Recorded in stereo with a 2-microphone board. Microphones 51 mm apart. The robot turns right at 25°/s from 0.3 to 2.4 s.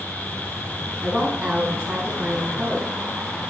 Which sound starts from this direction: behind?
A woman speaking, at 1.0 s.